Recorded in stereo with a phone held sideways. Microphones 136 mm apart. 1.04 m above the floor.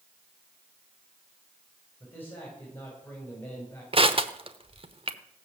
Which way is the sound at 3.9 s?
40° right (ahead or behind).